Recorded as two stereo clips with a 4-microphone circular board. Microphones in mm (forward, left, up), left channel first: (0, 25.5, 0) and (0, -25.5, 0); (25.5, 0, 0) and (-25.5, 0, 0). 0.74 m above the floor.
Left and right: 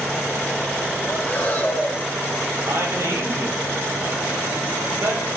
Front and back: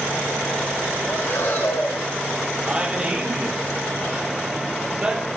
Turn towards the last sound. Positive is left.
turn(degrees=-115)